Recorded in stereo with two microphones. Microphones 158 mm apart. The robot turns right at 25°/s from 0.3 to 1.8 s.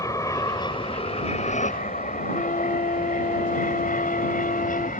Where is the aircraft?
20° left (ahead or behind); by 5.0 s 55° left (ahead or behind).